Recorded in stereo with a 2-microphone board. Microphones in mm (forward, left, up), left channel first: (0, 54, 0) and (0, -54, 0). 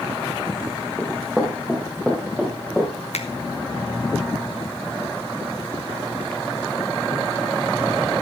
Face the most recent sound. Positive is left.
turn(degrees=80)